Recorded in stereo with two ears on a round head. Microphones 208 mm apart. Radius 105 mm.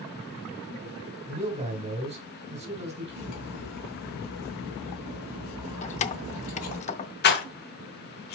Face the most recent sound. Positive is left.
turn(degrees=45)  # may be behind; listen again after turning